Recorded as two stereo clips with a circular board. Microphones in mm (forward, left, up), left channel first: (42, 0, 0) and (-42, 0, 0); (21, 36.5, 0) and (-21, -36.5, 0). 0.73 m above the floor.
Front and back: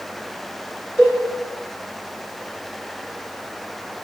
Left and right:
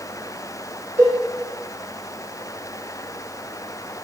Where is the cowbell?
65° right, 1.6 m.